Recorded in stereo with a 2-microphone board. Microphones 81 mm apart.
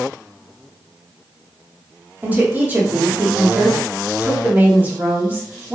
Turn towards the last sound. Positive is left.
turn(degrees=-20)  # may be behind; listen again after turning